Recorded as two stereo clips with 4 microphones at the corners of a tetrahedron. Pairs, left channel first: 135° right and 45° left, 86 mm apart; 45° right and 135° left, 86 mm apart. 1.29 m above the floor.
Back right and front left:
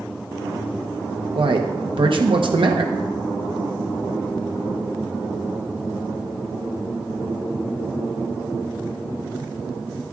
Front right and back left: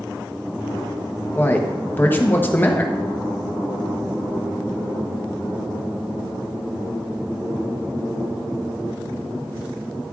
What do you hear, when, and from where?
1.4 s a man speaking: 25° left, 1.0 m